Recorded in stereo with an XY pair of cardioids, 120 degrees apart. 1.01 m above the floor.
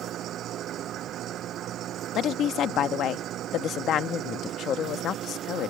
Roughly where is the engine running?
Ahead right.